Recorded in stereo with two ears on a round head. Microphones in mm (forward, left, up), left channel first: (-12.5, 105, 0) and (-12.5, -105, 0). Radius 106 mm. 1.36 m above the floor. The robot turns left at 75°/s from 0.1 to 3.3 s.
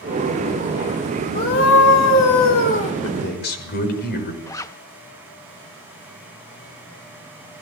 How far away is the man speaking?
About 6 m.